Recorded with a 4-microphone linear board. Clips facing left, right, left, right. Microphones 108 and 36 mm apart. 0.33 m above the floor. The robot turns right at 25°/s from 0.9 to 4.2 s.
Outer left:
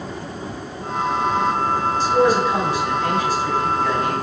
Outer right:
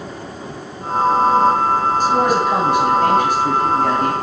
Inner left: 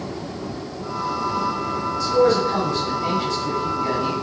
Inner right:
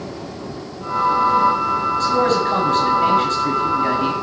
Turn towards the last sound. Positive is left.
turn(degrees=-65)